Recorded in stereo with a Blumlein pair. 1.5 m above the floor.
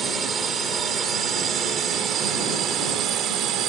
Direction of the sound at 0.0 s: 20° right.